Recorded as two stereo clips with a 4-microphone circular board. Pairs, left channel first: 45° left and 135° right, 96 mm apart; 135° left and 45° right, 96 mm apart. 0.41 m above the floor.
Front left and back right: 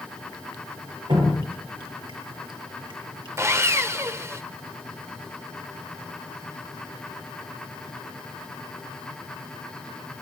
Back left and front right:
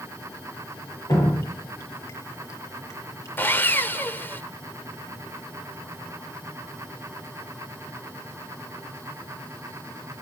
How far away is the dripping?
About 8.5 m.